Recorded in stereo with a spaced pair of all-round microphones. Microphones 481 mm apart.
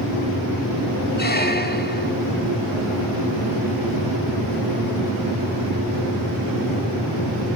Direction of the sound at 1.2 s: 20° left (ahead or behind).